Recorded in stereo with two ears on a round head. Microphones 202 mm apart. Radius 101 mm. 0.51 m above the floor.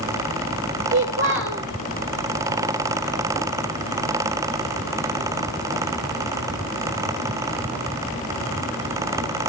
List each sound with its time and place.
0.9 s a child speaking: 55° right (ahead or behind), 1.2 m